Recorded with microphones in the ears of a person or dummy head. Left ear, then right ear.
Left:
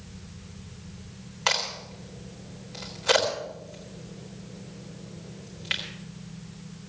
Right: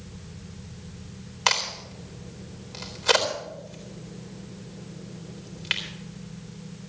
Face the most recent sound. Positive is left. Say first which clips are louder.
# right 2 dB
turn(degrees=-15)  # may be behind; listen again after turning